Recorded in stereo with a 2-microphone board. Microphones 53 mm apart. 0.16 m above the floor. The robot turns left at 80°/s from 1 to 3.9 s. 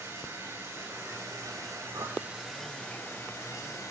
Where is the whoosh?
70° right (ahead or behind), 1.2 m; by 2.2 s 80° right, 1.2 m.